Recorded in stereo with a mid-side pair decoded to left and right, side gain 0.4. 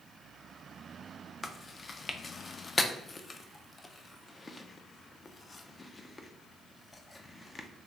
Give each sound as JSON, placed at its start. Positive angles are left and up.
{"t": 1.4, "sound": "chewing", "azimuth_deg": 35, "distance_m": 0.5}